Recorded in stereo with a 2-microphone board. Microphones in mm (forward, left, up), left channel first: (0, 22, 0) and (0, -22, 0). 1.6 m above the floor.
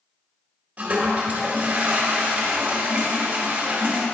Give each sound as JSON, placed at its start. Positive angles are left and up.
{"t": 0.8, "sound": "a toilet flushing", "side_deg": -35, "distance_m": 1.3}